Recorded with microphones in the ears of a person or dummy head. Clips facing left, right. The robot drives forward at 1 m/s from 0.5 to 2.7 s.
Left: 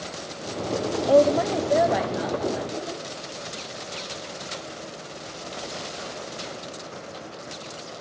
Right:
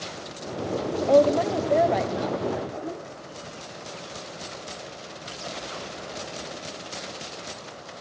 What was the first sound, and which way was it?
A woman speaking, 5° left (ahead or behind).